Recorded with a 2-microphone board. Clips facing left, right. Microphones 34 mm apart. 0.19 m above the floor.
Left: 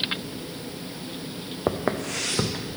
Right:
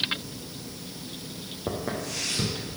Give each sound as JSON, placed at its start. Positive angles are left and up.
{"t": 1.7, "sound": "footsteps", "side_deg": 45, "distance_m": 0.6}